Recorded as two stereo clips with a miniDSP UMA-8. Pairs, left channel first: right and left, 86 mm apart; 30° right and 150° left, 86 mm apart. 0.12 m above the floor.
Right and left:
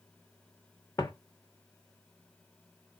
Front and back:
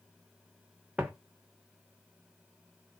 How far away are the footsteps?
About 0.6 m.